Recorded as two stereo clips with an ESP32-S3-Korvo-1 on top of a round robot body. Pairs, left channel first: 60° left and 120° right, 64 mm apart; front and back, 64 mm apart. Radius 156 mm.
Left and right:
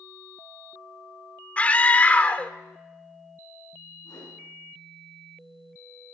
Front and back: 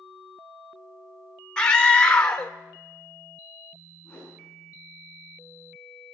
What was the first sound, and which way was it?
A scream, 50° left.